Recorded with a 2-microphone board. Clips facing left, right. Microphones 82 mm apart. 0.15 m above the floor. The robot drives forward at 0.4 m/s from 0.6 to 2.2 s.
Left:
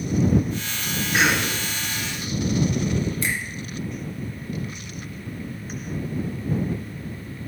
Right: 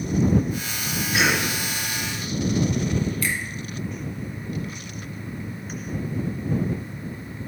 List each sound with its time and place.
1.1 s a cough: 35° left (ahead or behind), 2 m
3.2 s a finger snap: 25° left (ahead or behind), 1.3 m